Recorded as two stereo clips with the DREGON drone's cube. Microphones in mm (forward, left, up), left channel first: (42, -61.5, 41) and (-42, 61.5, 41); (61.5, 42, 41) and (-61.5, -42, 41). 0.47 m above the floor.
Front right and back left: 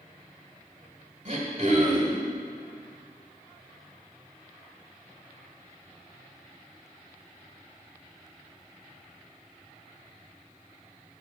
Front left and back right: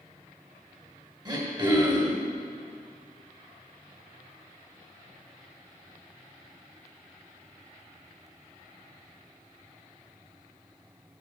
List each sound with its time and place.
1.2 s throat clearing: 160° left, 1.8 m